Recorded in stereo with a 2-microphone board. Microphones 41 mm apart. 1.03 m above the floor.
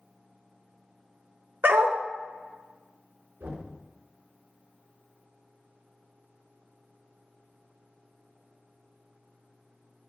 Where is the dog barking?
65° right (ahead or behind), 1.2 m.